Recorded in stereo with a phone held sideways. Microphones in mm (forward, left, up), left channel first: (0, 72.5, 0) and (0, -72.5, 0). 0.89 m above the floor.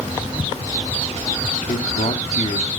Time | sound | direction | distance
1.7 | a man speaking | 65° left (ahead or behind) | 1.5 m